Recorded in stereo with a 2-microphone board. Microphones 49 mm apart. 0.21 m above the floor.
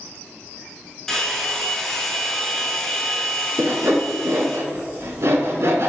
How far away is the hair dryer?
About 0.5 m.